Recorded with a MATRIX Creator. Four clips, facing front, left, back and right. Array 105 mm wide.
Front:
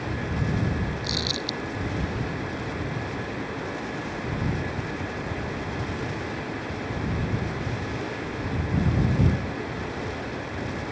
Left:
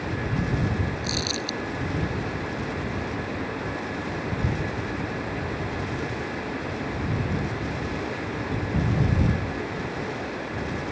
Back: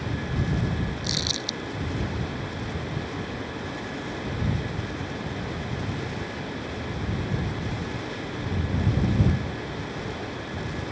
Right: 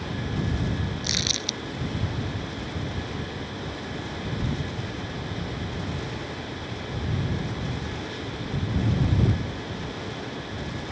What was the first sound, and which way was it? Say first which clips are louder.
Crumpling: left 3 dB, front 2 dB; 95° right.